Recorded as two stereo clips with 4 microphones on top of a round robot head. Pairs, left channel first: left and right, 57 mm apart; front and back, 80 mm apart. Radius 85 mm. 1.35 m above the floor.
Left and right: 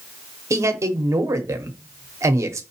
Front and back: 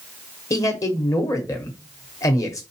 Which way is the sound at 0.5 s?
55° right.